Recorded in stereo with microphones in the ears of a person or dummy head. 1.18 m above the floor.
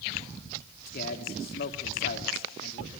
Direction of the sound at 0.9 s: 45° left (ahead or behind).